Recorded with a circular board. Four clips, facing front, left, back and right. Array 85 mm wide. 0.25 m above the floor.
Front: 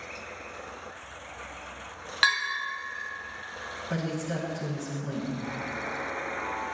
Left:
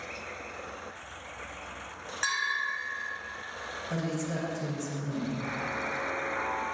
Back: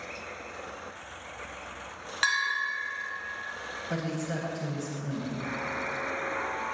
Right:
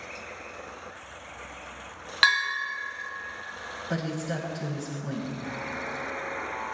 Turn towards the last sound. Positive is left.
turn(degrees=140)